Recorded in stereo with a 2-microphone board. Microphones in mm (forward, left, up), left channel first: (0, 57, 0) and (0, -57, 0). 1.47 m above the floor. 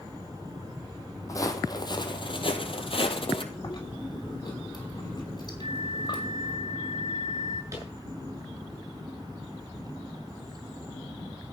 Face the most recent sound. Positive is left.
turn(degrees=-25)  # may be behind; listen again after turning